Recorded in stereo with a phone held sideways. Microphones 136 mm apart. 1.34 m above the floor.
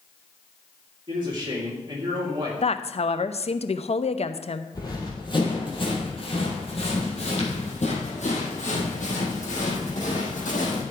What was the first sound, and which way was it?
A man speaking, 35° right (ahead or behind).